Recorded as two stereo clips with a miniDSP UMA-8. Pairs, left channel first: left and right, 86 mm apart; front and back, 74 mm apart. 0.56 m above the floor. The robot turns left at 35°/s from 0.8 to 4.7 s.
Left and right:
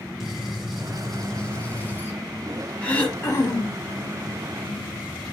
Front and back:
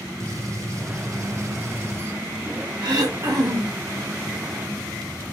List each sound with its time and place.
0.2 s a gunshot: 170° right, 0.9 m; by 2.2 s 140° left, 0.9 m
2.8 s throat clearing: 165° left, 0.9 m; by 3.9 s 130° left, 0.9 m